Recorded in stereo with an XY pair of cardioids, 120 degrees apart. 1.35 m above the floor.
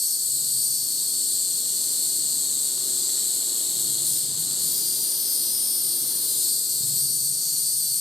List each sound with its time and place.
0.0 s an insect: 25° left, 3 m